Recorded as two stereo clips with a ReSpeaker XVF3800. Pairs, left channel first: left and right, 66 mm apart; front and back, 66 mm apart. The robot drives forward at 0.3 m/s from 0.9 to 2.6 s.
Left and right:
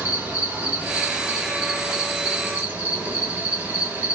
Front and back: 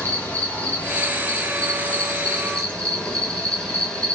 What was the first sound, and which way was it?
An insect, 40° right.